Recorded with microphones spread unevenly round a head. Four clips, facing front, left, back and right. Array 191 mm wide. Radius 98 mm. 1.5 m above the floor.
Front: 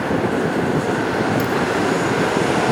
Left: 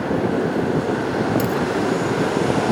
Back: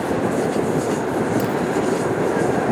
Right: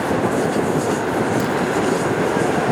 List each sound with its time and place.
1.4 s a dropped coin: 125° left